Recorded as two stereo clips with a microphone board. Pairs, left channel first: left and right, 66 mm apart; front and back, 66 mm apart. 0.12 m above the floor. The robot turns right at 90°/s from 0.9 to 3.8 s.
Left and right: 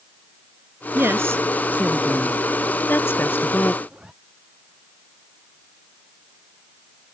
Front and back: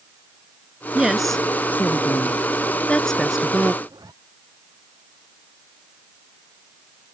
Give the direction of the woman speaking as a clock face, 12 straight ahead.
4 o'clock.